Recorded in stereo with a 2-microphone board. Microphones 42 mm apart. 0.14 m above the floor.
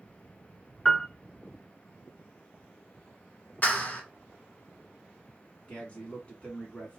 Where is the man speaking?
25° left (ahead or behind), 1.7 m.